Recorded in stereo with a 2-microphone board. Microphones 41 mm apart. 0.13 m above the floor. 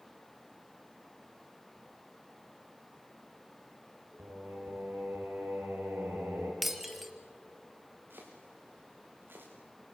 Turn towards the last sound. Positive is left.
turn(degrees=-55)  # may be behind; listen again after turning